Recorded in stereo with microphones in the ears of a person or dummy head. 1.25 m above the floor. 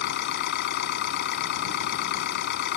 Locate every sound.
0.0 s an engine running: 55° left (ahead or behind)